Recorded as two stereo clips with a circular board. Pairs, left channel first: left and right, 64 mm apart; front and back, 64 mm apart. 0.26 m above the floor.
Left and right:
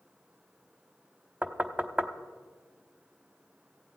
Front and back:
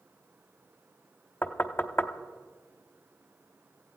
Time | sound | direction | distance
1.4 | knocking | 35° right | 0.8 m